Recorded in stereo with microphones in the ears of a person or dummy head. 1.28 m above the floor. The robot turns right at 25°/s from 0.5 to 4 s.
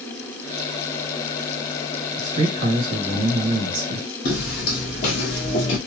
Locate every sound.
2.2 s a man speaking: 145° right, 1.4 m; by 4.1 s 100° right, 1.4 m
4.2 s footsteps: 45° left (ahead or behind), 1.8 m; by 5.8 s 20° left (ahead or behind), 1.3 m